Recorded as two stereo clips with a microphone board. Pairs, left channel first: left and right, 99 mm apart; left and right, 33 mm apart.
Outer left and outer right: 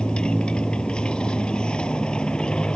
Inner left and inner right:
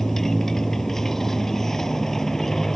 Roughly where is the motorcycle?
Centre.